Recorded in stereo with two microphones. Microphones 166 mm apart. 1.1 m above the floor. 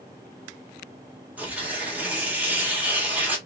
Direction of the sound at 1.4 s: 10° right (ahead or behind).